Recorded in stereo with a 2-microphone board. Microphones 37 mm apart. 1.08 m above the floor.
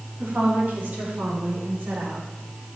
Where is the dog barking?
No dog barking in this recording.